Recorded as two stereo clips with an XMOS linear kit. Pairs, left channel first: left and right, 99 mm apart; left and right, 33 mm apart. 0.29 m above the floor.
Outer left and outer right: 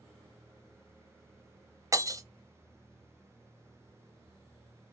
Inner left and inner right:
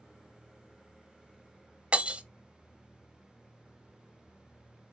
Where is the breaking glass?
35° right (ahead or behind), 0.6 m.